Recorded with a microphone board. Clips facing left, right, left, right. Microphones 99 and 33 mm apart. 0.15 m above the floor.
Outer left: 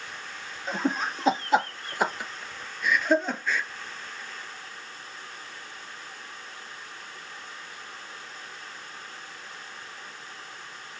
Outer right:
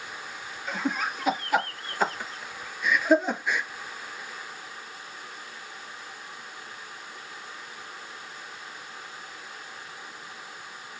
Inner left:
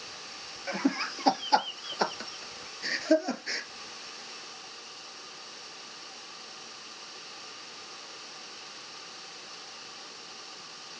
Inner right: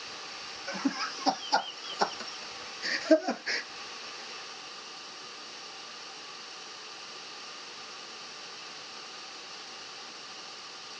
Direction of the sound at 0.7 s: 35° left (ahead or behind).